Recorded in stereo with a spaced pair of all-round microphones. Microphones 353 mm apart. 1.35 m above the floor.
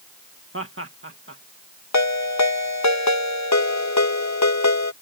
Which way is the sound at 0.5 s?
35° right (ahead or behind).